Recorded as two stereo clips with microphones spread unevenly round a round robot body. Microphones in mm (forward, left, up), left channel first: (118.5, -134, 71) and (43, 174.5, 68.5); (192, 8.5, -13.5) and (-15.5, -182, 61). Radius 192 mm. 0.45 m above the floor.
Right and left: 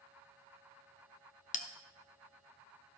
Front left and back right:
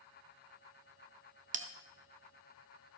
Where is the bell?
75° right, 0.8 m.